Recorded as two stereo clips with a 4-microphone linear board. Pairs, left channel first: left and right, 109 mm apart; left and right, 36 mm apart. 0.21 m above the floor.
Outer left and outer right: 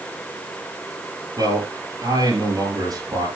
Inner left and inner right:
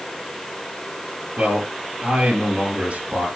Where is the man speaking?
40° right (ahead or behind), 5 m.